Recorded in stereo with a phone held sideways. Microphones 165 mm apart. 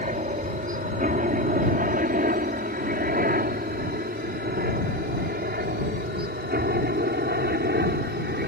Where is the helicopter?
50° right (ahead or behind); by 8.5 s 70° right (ahead or behind).